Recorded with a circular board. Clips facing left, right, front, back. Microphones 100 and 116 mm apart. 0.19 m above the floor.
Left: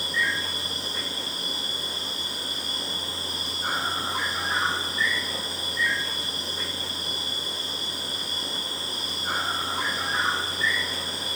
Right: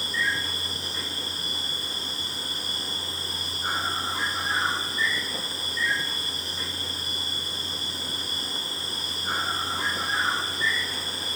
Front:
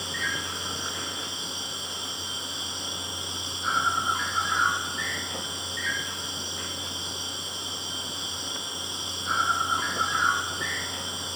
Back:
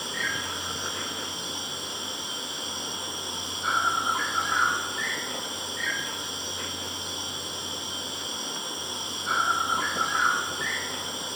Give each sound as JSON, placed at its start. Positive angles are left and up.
{"t": 0.0, "sound": "an insect", "azimuth_deg": 160, "distance_m": 4.5}